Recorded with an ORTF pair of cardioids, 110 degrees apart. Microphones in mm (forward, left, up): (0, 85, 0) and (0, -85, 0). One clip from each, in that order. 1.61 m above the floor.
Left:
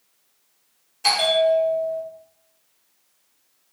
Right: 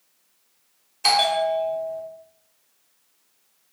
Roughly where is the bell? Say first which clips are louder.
Left 1 dB; ahead.